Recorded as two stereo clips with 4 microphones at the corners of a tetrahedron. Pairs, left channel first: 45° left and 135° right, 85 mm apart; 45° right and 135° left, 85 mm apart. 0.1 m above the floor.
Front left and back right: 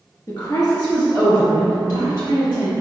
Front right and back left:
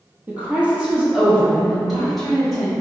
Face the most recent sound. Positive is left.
turn(degrees=40)